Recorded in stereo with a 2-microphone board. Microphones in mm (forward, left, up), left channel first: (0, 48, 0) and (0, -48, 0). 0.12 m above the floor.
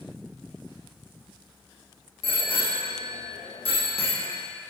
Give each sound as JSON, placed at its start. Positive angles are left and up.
{"t": 2.2, "sound": "a bicycle bell", "side_deg": 65, "distance_m": 4.5}